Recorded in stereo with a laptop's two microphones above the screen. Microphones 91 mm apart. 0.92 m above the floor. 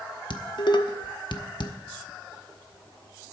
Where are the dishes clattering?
60° left (ahead or behind), 0.8 m.